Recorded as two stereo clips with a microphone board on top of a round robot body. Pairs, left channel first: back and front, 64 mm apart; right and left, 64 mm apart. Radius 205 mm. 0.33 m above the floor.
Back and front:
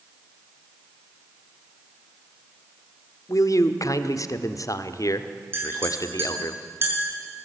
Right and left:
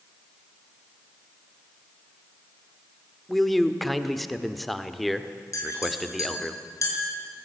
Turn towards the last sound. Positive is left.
turn(degrees=-55)